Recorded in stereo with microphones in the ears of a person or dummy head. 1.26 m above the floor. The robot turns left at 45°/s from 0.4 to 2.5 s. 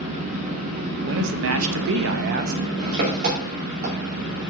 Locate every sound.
0.0 s an engine running: 40° right, 2.5 m; by 4.5 s 135° right, 2.5 m
1.0 s a man speaking: 70° right, 1.0 m; by 2.6 s 135° right, 1.0 m